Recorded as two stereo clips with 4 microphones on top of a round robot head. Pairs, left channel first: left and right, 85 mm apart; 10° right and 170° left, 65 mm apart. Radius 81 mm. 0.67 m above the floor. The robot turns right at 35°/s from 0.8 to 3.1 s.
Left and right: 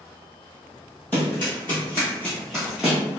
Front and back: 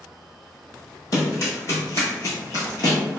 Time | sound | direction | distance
1.1 | running footsteps | 15° left | 1.1 m